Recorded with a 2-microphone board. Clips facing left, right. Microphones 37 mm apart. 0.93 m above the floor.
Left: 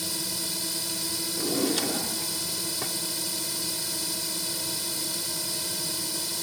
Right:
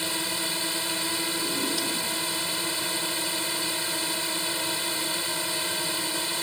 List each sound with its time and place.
0.0 s a drone: 45° right (ahead or behind)
1.4 s a drawer: 75° left (ahead or behind)